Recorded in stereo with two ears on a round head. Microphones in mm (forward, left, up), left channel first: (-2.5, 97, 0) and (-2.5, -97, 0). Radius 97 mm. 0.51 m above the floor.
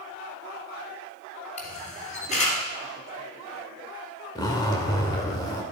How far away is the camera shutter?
About 3 m.